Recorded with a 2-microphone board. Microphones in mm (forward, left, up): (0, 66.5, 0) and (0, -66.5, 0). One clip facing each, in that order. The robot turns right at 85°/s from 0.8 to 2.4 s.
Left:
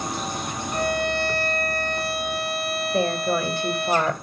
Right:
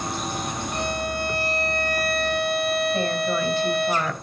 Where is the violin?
45° left, 3.5 m; by 3.9 s straight behind, 3.5 m.